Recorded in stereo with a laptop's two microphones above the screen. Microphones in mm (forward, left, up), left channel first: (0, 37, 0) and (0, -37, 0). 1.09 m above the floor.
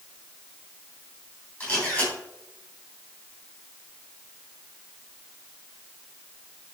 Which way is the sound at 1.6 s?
15° left (ahead or behind).